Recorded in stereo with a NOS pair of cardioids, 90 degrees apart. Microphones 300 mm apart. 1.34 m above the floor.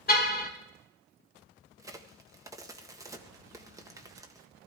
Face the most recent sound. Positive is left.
turn(degrees=-10)